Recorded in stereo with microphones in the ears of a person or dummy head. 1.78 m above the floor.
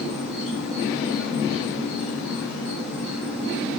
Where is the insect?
75° left (ahead or behind), 4 m.